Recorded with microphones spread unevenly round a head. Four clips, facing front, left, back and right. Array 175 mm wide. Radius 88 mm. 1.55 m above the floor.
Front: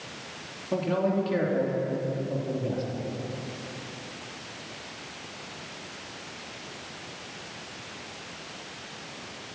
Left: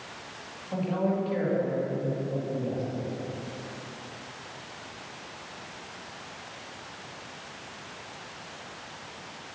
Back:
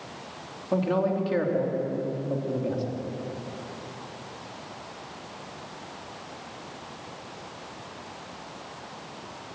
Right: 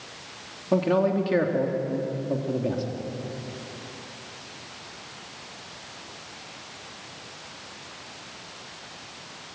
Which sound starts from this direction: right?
A man speaking, at 0.7 s.